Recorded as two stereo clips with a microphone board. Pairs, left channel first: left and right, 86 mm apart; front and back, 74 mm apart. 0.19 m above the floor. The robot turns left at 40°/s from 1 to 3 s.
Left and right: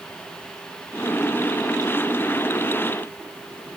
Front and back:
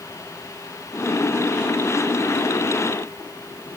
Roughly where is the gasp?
I don't hear a gasp.